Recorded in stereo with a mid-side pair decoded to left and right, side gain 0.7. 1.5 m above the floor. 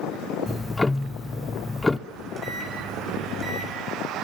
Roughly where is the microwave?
Ahead.